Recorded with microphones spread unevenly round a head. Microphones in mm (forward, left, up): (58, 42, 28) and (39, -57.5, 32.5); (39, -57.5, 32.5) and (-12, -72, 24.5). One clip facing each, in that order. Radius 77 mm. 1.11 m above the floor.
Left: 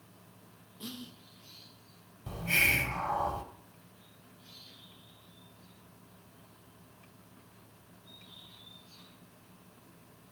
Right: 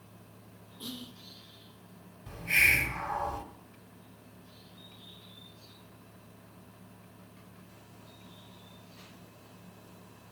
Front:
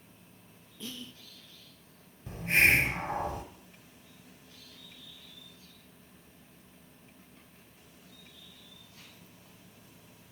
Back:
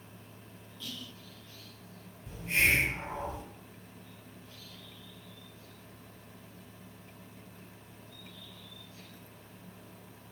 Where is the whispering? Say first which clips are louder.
Right 1 dB, front 1 dB; 20° right, 0.5 m.